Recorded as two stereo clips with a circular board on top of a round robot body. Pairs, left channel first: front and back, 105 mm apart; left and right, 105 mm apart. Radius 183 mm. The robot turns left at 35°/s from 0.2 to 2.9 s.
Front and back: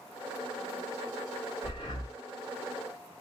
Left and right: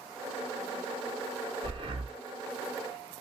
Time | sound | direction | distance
1.6 | breathing | 40° right | 0.8 m